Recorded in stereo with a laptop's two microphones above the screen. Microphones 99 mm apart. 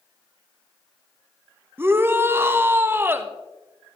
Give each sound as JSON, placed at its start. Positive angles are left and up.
{"t": 1.8, "sound": "a shout", "side_deg": -20, "distance_m": 0.6}